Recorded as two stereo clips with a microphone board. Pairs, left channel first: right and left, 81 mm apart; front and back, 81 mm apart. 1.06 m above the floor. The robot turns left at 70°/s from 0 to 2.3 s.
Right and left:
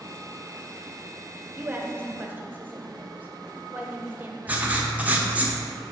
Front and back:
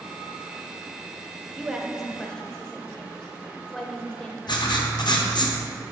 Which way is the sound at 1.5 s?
125° left.